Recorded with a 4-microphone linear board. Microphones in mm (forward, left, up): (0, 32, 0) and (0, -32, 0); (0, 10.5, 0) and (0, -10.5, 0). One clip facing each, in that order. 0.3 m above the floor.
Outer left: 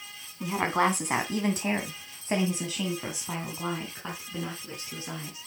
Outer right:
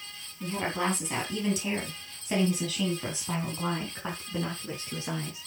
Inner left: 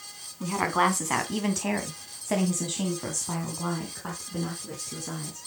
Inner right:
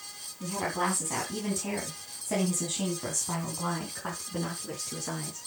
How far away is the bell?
No bell in this recording.